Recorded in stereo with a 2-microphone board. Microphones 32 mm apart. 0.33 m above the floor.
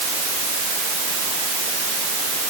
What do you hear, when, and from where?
Only background noise.